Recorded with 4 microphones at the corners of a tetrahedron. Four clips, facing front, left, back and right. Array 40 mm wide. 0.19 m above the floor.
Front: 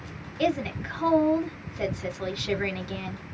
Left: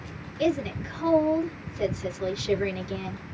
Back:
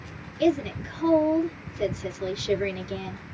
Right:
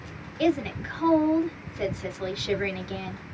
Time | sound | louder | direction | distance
0.4 | a woman speaking | right 1 dB, back 3 dB | 35° right | 1.6 m